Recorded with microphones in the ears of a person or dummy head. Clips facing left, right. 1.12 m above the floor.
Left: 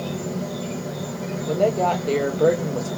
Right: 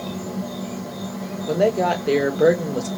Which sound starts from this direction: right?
A woman speaking, at 1.5 s.